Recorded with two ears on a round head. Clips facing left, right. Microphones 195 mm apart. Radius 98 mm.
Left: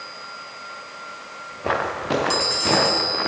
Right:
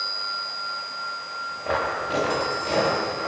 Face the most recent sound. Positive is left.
turn(degrees=75)  # may be behind; listen again after turning